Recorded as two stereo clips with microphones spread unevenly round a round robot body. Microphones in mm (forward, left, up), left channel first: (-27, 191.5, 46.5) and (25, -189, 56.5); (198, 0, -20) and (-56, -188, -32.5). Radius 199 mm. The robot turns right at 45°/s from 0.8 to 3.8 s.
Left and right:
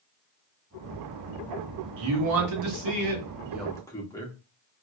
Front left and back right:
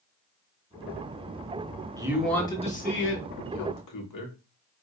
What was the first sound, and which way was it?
A man speaking, 65° right.